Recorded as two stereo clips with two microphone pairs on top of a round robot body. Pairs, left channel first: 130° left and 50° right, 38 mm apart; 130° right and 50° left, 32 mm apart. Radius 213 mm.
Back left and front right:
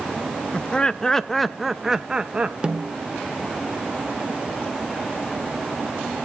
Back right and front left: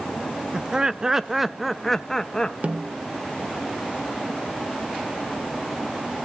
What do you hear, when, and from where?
0.5 s laughter: 110° left, 1.0 m; by 2.5 s 95° right, 1.0 m
2.6 s a snare drum: 15° left, 1.1 m